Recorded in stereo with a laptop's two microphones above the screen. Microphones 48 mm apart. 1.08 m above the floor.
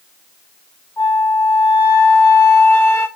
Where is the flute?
70° left (ahead or behind), 1.4 m.